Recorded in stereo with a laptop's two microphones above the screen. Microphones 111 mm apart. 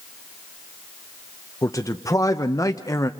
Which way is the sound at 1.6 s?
30° left (ahead or behind).